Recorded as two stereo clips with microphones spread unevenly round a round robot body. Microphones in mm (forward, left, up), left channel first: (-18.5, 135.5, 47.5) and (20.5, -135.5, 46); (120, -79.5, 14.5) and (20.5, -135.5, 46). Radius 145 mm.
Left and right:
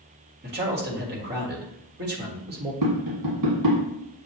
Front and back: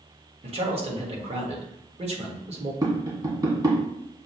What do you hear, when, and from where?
0.4 s a man speaking: 120° right, 1.7 m
2.8 s tapping: 95° right, 1.7 m